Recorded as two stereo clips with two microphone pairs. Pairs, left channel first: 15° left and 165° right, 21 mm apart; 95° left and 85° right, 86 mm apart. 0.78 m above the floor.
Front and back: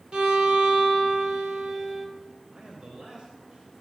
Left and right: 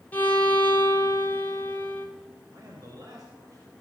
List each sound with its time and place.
0.1 s a violin: 160° left, 2.5 m
2.5 s a man speaking: 130° right, 3.5 m